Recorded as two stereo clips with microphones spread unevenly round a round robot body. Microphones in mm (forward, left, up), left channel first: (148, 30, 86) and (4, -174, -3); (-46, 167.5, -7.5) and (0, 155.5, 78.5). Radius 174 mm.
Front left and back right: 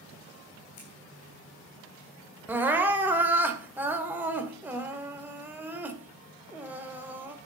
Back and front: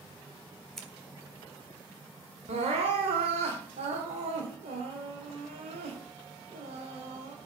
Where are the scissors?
105° left, 3 m.